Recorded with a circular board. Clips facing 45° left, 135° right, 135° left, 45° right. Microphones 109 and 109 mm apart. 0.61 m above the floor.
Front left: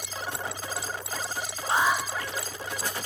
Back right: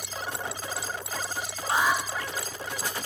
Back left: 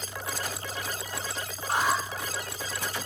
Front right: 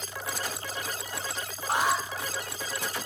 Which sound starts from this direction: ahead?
An alarm, at 1.7 s.